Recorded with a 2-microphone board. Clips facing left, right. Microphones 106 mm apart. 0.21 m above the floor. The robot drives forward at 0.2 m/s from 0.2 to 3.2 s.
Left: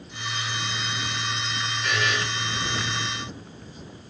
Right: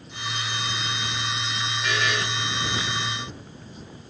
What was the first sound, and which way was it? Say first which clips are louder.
A buzzer: even; centre (ahead or behind).